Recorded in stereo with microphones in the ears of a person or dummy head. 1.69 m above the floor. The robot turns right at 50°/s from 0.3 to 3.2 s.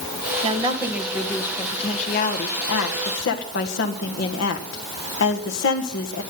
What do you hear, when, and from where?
0.4 s a woman speaking: 30° right, 1.7 m; by 6.2 s 110° left, 1.7 m